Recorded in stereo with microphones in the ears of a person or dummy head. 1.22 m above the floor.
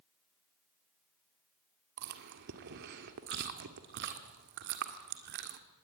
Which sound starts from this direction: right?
Chewing, at 2.0 s.